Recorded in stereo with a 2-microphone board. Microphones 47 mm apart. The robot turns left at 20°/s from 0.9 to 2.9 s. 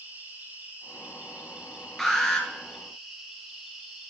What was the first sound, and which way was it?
An insect, 125° right.